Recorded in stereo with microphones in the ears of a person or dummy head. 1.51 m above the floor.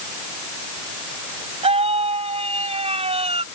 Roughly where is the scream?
Right.